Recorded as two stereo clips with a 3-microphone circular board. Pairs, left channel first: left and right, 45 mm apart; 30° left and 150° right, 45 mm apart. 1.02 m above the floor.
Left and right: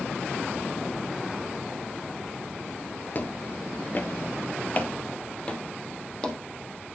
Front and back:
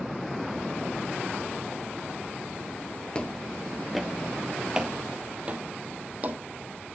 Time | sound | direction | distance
3.1 | footsteps | 85° left | 1.2 m